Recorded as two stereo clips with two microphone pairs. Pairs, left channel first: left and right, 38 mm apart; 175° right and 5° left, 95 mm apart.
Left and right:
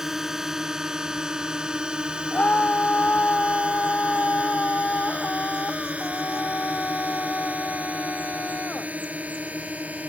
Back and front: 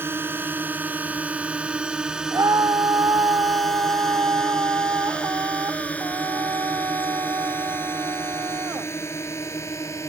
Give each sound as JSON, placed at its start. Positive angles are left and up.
{"t": 0.0, "sound": "a drone", "azimuth_deg": -25}
{"t": 2.3, "sound": "a scream", "azimuth_deg": 50}